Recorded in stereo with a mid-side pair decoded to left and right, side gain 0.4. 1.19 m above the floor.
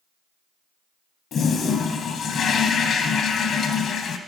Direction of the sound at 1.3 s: 60° left.